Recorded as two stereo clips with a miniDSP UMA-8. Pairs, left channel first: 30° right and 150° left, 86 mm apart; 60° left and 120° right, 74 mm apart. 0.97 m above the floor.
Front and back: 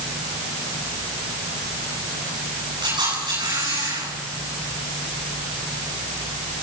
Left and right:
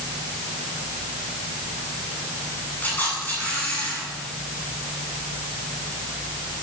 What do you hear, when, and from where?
2.8 s a camera shutter: 130° left, 9.5 m